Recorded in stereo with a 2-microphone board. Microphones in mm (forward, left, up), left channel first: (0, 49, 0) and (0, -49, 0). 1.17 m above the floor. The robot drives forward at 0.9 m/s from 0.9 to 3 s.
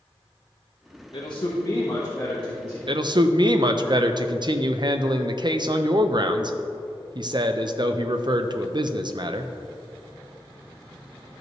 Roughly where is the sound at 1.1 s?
Left.